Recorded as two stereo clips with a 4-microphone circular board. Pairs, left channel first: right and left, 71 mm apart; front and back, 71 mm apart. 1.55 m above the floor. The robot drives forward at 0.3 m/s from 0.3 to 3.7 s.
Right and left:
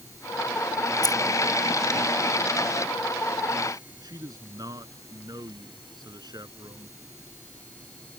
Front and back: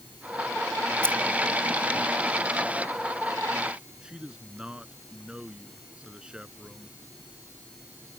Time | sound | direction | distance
1.0 | keys jangling | 70° right | ?
4.0 | a man speaking | 105° left | ?